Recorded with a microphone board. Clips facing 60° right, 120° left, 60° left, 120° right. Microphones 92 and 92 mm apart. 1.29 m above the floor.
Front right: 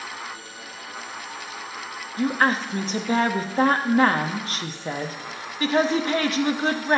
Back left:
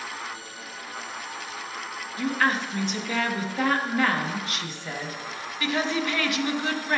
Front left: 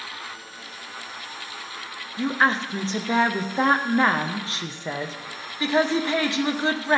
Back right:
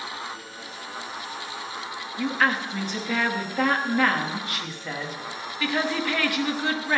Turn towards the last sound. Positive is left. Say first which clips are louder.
# front right 3 dB, front left 2 dB
turn(degrees=-5)